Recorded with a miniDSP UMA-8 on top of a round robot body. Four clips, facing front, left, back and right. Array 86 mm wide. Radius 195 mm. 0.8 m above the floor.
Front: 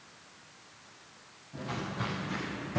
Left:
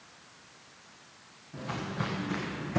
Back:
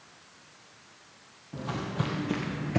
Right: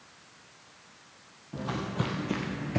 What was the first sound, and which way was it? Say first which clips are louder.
Footsteps: right 3 dB, back 3 dB; 125° right.